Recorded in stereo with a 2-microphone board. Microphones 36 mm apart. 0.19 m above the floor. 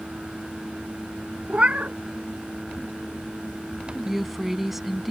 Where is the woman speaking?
5° right (ahead or behind).